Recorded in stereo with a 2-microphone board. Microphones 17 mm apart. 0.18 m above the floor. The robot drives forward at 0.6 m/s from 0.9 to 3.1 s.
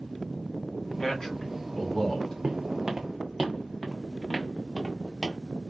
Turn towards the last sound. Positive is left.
turn(degrees=10)  # may be behind; listen again after turning